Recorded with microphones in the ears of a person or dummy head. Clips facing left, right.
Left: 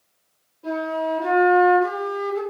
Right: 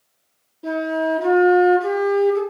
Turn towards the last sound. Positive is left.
turn(degrees=-45)  # may be behind; listen again after turning